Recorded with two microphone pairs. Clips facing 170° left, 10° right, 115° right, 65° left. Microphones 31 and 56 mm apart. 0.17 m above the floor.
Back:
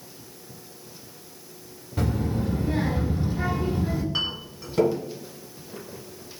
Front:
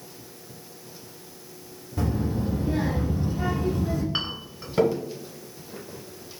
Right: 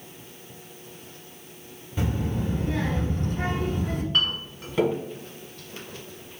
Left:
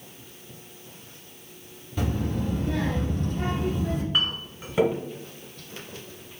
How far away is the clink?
About 1.0 m.